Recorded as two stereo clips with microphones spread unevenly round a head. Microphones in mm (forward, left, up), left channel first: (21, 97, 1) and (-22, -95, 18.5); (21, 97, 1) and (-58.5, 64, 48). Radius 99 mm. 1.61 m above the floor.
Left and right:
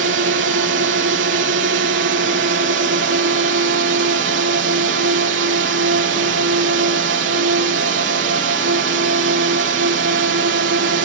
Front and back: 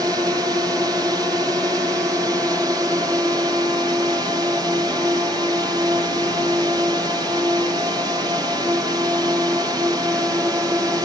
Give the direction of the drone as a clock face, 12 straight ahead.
3 o'clock.